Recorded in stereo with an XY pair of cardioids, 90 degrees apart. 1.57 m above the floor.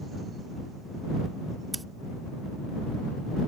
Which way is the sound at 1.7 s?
25° right.